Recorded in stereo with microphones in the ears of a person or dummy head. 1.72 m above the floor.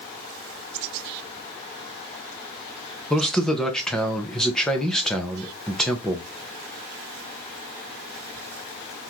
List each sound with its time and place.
3.1 s a man speaking: 5° left (ahead or behind), 0.7 m